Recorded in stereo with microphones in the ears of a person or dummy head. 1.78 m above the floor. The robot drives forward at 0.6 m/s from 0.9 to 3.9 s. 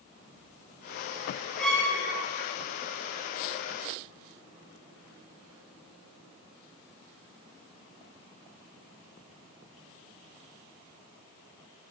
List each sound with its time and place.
1.6 s a violin: 5° left (ahead or behind), 0.6 m